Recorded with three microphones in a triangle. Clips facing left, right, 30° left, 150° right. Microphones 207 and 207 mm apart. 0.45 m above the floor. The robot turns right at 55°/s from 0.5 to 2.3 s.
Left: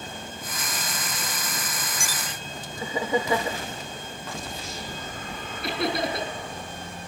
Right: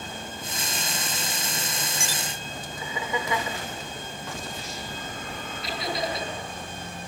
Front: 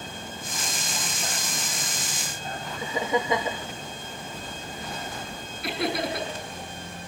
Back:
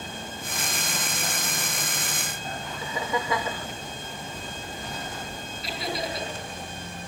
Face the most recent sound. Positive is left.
turn(degrees=60)